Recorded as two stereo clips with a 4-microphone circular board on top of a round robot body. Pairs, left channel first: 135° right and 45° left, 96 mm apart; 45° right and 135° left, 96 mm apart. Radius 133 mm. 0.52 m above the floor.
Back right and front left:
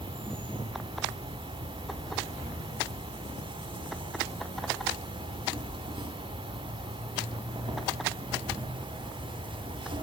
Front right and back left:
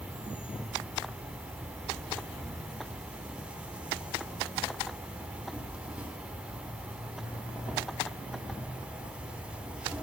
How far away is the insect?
About 3 m.